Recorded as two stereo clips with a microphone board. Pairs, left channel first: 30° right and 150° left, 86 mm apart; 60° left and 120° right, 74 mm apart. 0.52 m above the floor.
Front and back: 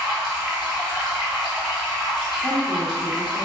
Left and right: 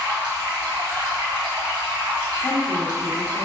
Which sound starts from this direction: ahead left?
A woman speaking, at 2.4 s.